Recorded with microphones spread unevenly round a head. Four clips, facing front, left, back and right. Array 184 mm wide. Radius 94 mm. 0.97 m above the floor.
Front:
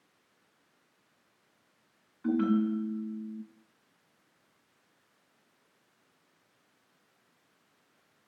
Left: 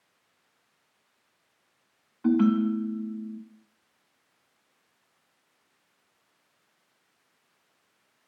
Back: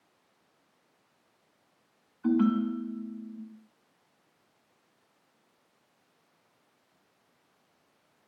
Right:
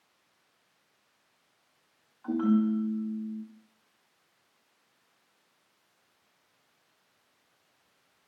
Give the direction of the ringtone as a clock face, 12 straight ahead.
9 o'clock.